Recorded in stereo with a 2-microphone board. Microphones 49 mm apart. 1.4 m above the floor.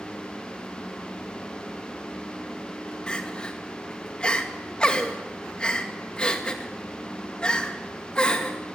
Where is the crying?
20° left (ahead or behind), 2.0 m.